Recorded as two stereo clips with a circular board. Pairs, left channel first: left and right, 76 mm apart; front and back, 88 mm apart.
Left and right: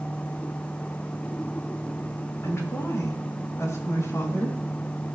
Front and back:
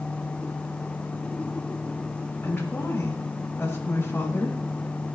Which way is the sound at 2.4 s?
60° left.